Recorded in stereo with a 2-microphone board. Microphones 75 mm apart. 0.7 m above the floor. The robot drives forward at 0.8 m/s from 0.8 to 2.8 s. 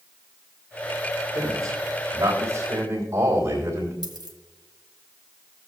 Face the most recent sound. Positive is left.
turn(degrees=-65)  # may be behind; listen again after turning